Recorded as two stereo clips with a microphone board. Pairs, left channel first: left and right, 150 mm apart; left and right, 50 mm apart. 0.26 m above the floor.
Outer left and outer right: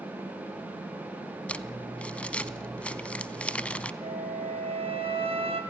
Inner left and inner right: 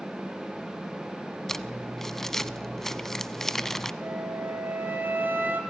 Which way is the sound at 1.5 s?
10° left (ahead or behind).